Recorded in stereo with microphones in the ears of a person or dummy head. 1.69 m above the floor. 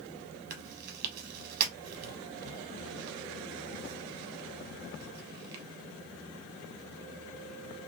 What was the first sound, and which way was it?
Chewing, 55° right (ahead or behind).